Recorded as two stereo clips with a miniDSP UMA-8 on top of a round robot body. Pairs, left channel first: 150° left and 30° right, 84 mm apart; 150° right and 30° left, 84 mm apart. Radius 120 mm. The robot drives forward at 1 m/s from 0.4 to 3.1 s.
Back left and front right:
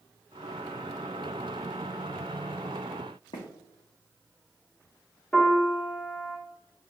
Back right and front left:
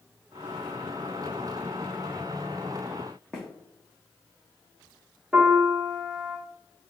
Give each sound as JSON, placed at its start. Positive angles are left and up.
{"t": 3.3, "sound": "footsteps", "azimuth_deg": 125, "distance_m": 1.2}
{"t": 5.3, "sound": "a piano", "azimuth_deg": 90, "distance_m": 1.3}